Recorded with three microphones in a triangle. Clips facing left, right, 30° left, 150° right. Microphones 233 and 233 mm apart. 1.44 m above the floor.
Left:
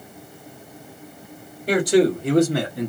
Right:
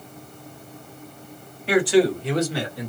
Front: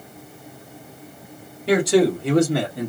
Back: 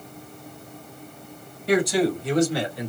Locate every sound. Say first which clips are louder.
1.7 s a man speaking: left 1 dB, front 4 dB; 40° left, 1.8 m; by 2.9 s 65° left, 1.2 m